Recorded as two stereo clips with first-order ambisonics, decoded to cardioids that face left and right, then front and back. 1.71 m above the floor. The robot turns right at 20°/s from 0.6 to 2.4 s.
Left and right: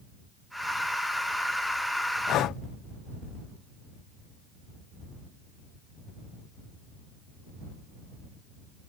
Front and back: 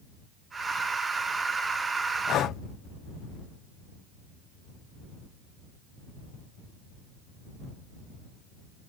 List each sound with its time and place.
2.3 s breathing: 45° left; by 2.6 s 50° left